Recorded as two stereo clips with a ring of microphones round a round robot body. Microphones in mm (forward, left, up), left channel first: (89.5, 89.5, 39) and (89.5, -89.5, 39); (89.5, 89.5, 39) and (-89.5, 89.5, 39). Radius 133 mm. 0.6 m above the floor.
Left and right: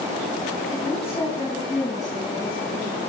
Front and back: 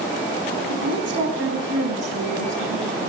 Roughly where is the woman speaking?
Behind.